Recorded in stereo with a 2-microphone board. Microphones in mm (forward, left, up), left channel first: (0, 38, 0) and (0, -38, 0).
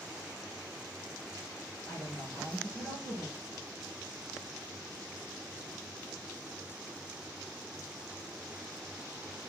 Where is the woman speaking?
5° left (ahead or behind), 2.5 m.